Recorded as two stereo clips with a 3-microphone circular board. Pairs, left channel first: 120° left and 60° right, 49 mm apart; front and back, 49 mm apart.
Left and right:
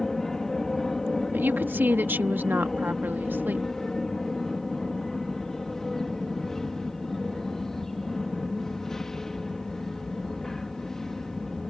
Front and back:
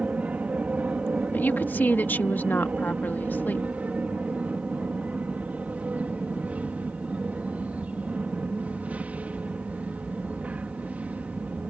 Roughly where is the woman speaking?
Ahead right.